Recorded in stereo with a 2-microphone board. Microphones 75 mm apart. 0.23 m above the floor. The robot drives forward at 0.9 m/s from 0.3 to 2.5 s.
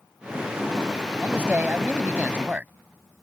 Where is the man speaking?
25° right (ahead or behind); by 2.7 s 20° right (ahead or behind).